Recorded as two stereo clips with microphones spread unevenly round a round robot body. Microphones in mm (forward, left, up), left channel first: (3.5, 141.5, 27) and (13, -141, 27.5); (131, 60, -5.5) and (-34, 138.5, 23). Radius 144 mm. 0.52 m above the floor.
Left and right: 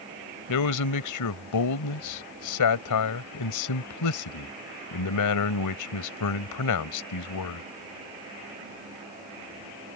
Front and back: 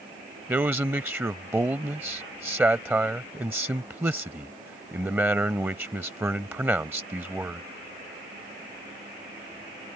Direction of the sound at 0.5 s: 75° left.